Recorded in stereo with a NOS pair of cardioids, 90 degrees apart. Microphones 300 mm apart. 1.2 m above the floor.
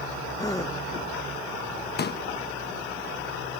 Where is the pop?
35° left.